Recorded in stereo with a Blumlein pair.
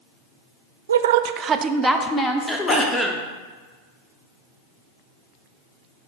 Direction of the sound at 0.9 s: 70° right.